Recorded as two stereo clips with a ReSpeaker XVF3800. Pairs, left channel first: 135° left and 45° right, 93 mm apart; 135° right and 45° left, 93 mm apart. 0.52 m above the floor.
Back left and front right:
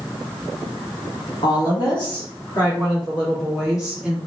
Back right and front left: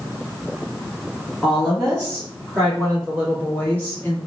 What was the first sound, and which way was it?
A woman speaking, 135° left.